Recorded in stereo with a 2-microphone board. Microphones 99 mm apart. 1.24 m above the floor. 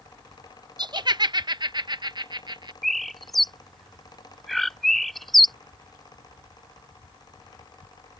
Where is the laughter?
45° right (ahead or behind).